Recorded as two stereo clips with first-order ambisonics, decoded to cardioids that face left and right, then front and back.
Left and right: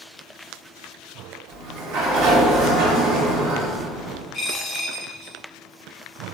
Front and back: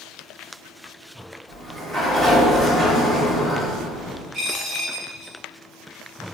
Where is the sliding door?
95° right, 1.1 m.